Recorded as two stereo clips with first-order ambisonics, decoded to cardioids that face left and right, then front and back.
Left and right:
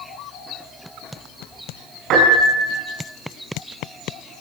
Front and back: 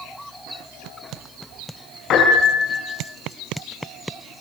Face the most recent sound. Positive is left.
turn(degrees=-50)